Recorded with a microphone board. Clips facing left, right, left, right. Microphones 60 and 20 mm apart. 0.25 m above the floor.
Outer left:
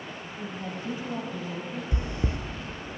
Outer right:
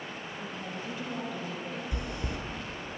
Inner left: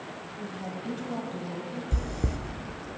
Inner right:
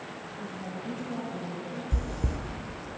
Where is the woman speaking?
35° left (ahead or behind), 1.2 m; by 1.8 s 30° left (ahead or behind), 1.6 m.